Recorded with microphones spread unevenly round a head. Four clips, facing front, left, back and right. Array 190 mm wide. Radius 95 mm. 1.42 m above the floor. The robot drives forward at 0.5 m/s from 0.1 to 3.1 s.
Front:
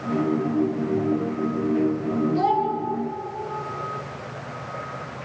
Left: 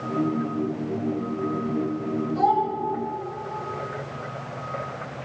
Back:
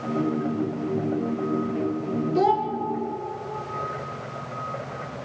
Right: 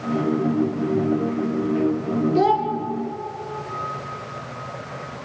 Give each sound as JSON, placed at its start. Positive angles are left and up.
{"t": 2.4, "sound": "a child speaking", "azimuth_deg": -125, "distance_m": 0.8}